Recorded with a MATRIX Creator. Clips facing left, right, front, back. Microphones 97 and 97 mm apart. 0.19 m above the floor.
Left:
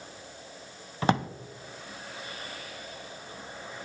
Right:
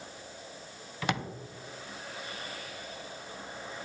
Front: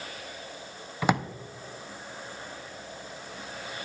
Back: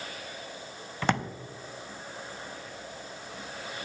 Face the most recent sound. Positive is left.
turn(degrees=75)